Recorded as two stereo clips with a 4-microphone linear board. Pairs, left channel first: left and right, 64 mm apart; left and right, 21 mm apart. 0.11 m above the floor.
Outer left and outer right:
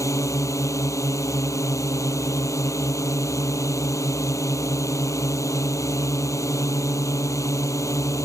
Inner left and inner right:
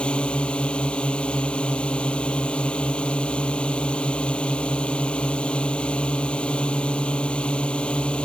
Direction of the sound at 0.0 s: 55° left (ahead or behind).